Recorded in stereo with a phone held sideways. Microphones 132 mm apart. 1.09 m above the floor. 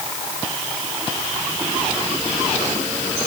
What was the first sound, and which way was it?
Only background noise.